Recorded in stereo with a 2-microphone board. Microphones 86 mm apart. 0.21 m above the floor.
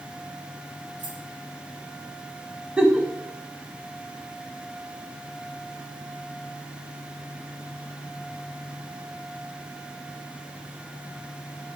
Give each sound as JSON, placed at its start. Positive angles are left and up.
{"t": 1.0, "sound": "keys jangling", "side_deg": -75, "distance_m": 4.0}
{"t": 2.8, "sound": "a giggle", "side_deg": -15, "distance_m": 0.9}